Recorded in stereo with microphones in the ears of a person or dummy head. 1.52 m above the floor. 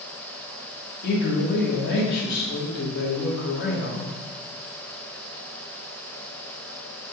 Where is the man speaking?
50° left (ahead or behind), 1.5 m.